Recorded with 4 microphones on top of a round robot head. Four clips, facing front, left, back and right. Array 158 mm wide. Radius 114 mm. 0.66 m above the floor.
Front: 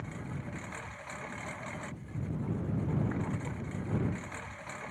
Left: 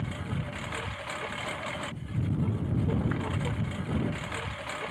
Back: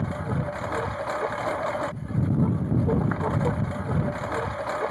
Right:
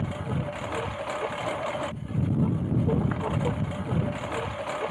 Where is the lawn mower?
150° right.